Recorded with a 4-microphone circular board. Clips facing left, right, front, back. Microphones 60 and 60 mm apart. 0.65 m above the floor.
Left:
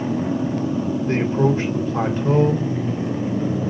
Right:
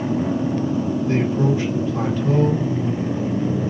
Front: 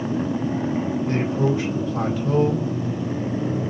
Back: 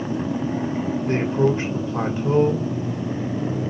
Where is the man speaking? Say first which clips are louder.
Left 2 dB, back 4 dB; 125° left, 2.5 m.